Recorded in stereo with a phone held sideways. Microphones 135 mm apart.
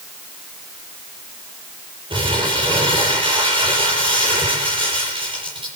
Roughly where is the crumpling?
Right.